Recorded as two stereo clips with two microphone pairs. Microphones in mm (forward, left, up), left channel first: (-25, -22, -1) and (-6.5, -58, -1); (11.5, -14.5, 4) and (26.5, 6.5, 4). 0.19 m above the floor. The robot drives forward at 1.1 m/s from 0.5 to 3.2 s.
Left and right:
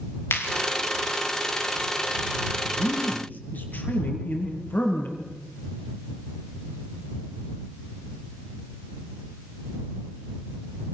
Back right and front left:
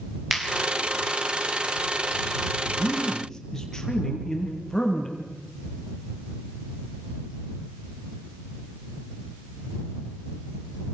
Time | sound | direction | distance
0.3 | a clap | 125° left | 5 m
2.6 | a man speaking | 160° left | 4 m